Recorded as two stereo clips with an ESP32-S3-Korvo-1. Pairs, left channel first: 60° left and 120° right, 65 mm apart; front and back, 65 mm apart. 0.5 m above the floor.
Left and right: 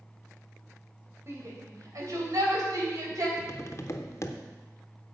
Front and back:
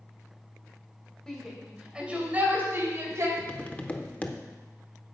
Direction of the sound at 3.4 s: 55° left.